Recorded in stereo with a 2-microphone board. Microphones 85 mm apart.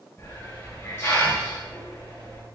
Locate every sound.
0.2 s a hiss: 35° left (ahead or behind), 1.1 m